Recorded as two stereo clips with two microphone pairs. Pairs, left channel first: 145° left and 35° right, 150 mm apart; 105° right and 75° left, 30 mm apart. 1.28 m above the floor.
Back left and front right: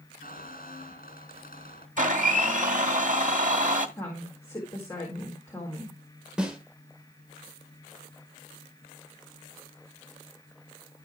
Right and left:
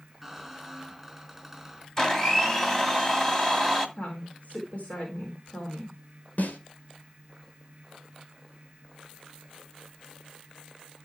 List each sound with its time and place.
0.2 s a squeak: 160° left, 4 m
2.0 s a blender: 30° right, 1.9 m
4.0 s a woman speaking: 145° right, 4 m
6.4 s a snare drum: 120° right, 2 m